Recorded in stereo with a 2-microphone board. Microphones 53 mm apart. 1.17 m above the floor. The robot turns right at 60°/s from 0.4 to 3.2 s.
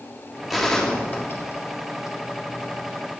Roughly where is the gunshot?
Centre.